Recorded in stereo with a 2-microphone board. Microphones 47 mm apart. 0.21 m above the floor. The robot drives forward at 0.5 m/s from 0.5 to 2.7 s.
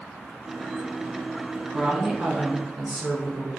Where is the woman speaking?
15° right (ahead or behind), 1.7 m; by 3.5 s 10° right (ahead or behind), 2 m.